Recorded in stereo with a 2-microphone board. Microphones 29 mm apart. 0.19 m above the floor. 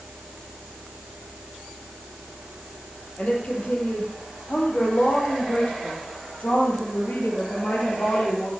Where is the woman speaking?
45° left (ahead or behind), 5.5 m; by 8.5 s 75° left (ahead or behind), 5 m.